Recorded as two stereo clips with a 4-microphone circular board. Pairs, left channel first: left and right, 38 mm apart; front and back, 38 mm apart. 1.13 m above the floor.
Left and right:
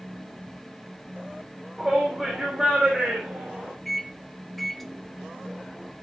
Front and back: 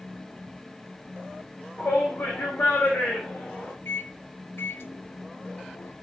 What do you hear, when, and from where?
1.8 s a shout: straight ahead, 4 m; by 3.7 s 20° right, 4 m
3.9 s a microwave: 5° left, 0.7 m